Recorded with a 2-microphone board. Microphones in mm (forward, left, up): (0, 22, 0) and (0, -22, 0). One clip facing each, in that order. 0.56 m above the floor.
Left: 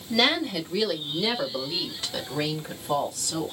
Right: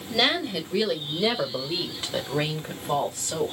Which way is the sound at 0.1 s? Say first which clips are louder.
Left 1 dB; 10° right (ahead or behind).